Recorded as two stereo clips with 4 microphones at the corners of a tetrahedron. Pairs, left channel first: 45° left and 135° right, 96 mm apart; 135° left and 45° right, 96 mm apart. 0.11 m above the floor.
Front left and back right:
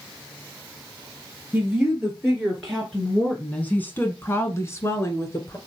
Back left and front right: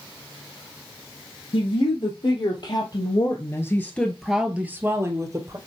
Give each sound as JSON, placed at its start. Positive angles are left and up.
{"t": 1.5, "sound": "a woman speaking", "azimuth_deg": 145, "distance_m": 3.0}